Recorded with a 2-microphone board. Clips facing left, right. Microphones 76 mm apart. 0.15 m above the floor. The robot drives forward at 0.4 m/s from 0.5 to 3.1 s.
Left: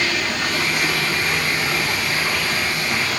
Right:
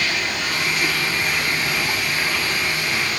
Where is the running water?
30° left (ahead or behind), 9 m; by 3.2 s 25° left (ahead or behind), 10 m.